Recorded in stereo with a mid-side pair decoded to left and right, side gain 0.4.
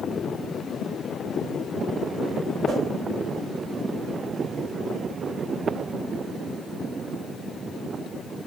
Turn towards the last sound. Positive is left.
turn(degrees=-60)